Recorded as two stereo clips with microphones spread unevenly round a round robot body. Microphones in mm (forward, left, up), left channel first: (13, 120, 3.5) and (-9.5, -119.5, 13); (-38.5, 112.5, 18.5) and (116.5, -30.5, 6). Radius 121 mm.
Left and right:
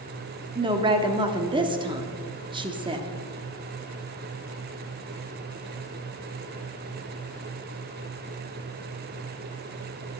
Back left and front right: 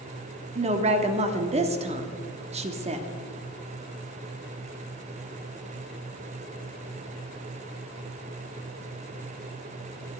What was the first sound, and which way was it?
A woman speaking, 40° right.